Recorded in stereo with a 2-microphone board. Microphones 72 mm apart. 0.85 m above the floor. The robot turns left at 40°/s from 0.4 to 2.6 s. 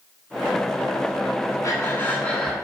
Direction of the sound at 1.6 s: 40° left.